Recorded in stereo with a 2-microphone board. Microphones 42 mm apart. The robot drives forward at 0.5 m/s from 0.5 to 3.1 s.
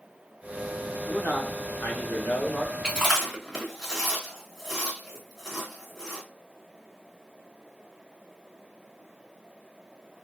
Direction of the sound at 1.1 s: 55° left (ahead or behind).